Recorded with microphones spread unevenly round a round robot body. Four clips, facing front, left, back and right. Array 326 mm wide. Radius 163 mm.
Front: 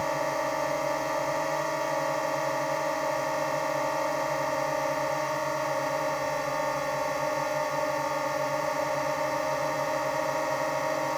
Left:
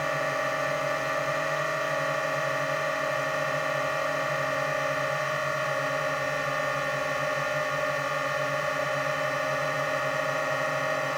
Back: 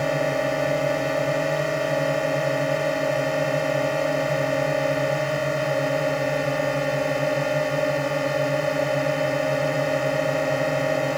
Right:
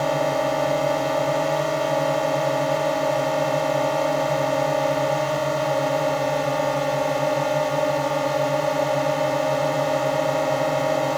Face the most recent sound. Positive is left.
turn(degrees=-150)